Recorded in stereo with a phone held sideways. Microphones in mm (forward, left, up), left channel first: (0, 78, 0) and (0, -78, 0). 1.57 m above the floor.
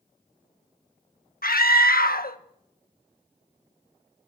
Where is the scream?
75° left (ahead or behind), 1.6 m.